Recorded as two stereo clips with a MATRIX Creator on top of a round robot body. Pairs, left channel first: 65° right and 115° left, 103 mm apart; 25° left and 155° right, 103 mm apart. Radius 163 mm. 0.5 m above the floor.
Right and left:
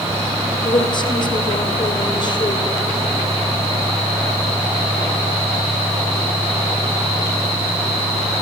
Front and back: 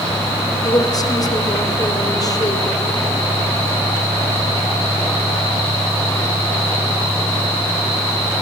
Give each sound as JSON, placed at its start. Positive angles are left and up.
{"t": 0.6, "sound": "a woman speaking", "azimuth_deg": -25, "distance_m": 2.5}